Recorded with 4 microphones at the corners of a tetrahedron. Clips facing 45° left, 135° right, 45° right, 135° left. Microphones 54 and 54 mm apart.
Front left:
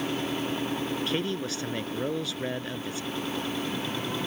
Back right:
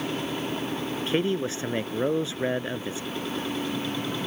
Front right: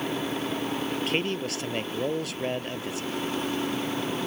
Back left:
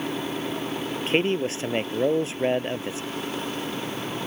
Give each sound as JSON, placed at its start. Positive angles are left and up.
{"t": 1.1, "sound": "a man speaking", "azimuth_deg": 175}